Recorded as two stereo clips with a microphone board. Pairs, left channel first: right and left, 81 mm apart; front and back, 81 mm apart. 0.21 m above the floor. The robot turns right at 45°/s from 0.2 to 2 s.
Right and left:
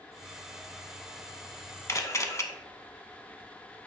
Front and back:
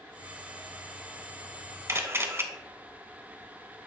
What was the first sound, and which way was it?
A camera shutter, 135° right.